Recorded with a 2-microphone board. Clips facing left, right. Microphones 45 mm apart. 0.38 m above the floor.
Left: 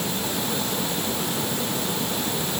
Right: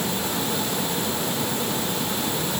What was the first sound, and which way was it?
Only background noise.